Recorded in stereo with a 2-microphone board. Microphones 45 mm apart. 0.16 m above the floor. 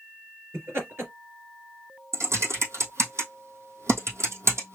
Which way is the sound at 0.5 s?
60° right (ahead or behind).